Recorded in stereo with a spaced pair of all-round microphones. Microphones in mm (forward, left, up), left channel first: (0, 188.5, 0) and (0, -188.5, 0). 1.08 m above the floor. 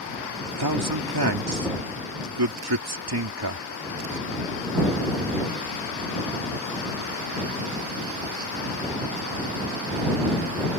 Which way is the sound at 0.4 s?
80° right.